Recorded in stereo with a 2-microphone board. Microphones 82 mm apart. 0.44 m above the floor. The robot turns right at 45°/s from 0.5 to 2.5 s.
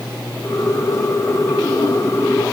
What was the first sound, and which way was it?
Only background noise.